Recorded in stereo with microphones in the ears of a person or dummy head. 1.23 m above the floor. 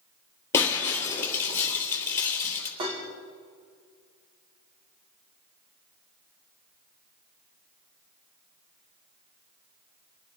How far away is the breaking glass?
About 3.5 m.